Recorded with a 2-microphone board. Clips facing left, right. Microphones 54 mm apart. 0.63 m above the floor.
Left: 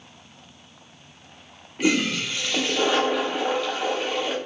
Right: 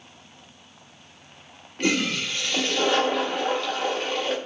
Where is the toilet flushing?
5° left (ahead or behind), 0.7 m.